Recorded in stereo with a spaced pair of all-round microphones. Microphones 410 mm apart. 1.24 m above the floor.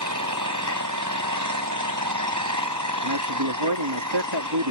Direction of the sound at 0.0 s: 45° right (ahead or behind).